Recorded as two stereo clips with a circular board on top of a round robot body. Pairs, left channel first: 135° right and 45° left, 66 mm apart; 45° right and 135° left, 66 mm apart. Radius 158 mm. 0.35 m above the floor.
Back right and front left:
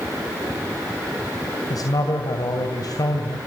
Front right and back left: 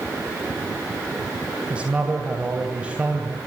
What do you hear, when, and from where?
1.7 s a man speaking: 150° right, 2.5 m